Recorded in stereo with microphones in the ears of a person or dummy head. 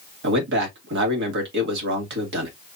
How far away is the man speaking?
About 2 m.